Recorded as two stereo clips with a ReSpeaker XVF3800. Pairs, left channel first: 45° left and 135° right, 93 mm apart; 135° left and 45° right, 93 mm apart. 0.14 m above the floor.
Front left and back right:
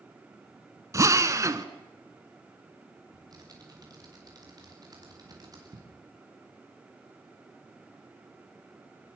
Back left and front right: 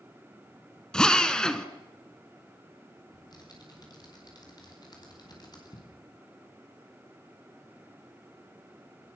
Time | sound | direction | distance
0.9 | a drill | 150° right | 1.5 m
3.1 | typing on a keyboard | straight behind | 7 m